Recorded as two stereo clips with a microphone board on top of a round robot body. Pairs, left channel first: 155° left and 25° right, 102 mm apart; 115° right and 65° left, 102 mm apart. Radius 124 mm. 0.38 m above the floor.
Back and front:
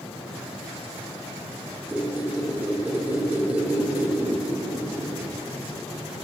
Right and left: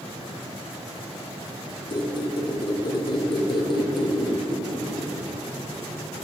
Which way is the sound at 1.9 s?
95° right.